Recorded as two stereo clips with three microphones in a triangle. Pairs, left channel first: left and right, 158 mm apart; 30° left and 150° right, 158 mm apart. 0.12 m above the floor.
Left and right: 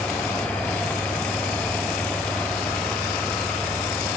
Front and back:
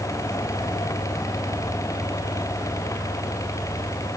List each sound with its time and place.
Only background noise.